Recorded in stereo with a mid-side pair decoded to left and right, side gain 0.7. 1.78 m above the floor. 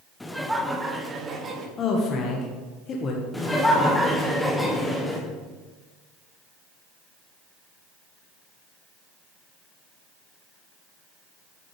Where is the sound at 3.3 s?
10° left, 1.4 m.